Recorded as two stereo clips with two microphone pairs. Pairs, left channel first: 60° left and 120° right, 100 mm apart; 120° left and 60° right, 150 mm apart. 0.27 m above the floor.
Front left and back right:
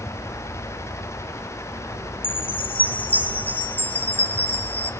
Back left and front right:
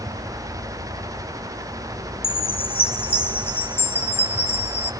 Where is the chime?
85° left, 1.1 m.